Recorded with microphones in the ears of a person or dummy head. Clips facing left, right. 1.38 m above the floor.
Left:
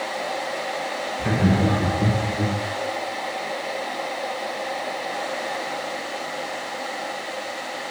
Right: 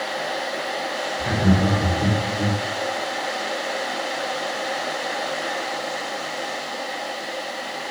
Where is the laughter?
70° left (ahead or behind), 0.8 m; by 2.6 s 25° left (ahead or behind), 1.2 m.